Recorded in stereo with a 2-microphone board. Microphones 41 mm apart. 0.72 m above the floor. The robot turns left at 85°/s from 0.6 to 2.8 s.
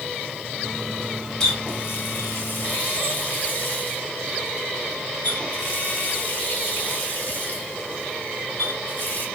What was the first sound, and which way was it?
A running tap, 15° left (ahead or behind).